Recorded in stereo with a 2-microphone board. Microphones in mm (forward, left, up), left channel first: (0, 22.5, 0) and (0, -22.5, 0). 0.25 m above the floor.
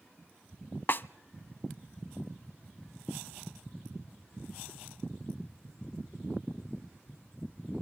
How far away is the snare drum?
About 0.5 m.